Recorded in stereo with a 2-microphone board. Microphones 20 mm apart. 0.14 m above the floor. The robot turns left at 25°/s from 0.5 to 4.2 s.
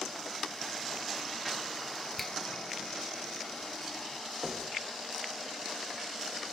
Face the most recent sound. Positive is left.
turn(degrees=-5)  # may be behind; listen again after turning